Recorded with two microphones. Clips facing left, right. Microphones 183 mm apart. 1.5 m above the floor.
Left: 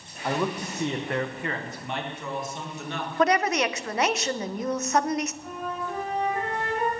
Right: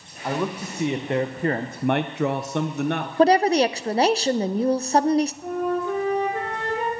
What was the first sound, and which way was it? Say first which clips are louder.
A man speaking: right 1 dB; 5° right (ahead or behind).